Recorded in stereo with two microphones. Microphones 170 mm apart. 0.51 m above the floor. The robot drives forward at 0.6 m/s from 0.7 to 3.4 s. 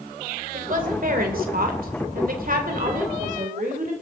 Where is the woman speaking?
55° right (ahead or behind), 2 m; by 3.9 s 50° right (ahead or behind), 2 m.